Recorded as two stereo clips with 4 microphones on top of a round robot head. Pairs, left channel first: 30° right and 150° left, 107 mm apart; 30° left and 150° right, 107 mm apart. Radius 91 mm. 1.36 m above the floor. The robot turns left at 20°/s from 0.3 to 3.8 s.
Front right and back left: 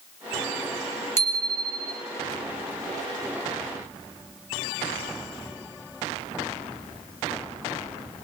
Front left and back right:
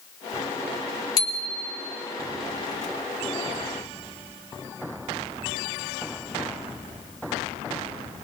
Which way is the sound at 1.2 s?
85° left.